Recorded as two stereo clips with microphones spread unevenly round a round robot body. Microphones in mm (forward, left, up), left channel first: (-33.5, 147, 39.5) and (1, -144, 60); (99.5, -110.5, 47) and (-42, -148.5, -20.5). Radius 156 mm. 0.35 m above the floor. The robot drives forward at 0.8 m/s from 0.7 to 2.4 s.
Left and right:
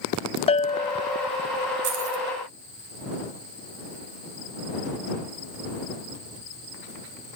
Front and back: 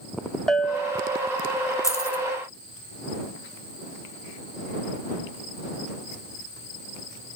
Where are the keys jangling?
65° right, 2.5 m; by 2.2 s 70° right, 2.5 m.